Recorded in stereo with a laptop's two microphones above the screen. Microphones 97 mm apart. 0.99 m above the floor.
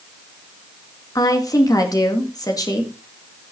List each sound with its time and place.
1.1 s a woman speaking: 40° left (ahead or behind), 1.9 m